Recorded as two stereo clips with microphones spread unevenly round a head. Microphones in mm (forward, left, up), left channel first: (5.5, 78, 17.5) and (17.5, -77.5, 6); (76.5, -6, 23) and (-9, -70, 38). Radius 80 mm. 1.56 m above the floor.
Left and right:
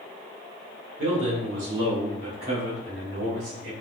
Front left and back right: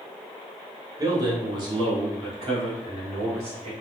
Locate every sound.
1.0 s a man speaking: 85° right, 1.4 m; by 3.7 s 115° right, 3 m